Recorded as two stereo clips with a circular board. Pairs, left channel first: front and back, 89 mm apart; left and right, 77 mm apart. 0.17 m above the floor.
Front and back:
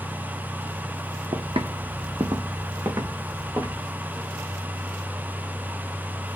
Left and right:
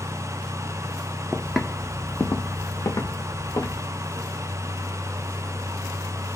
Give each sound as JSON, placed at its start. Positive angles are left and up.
{"t": 1.3, "sound": "footsteps", "azimuth_deg": -165, "distance_m": 0.5}